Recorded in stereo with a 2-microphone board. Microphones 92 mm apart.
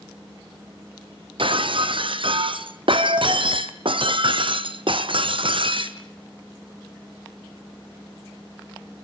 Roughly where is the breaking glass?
Right.